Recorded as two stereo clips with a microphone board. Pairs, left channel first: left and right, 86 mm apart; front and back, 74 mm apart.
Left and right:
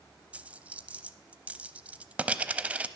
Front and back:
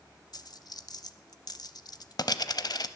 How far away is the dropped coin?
About 0.6 m.